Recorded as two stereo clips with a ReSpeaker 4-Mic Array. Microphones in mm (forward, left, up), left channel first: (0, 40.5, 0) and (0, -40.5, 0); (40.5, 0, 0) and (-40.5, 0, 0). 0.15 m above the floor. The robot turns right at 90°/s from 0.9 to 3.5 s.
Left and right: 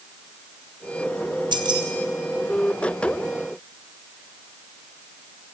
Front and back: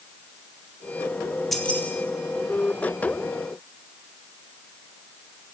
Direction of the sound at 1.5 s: 90° right.